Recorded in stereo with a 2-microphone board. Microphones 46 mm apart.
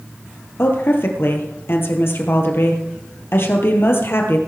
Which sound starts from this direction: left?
A woman speaking, at 0.6 s.